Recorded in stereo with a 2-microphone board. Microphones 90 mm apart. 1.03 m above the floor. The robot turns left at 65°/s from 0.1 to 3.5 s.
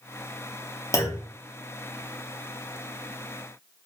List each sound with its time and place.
0.9 s a clunk: 35° left (ahead or behind), 0.8 m; by 1.3 s 20° left (ahead or behind), 0.8 m